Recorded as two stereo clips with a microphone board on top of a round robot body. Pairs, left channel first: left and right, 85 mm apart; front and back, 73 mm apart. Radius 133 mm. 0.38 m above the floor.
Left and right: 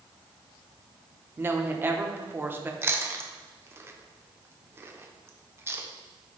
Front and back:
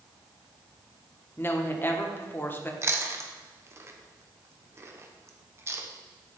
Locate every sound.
1.4 s a woman speaking: 40° right, 1.1 m
2.8 s chewing: 140° right, 0.9 m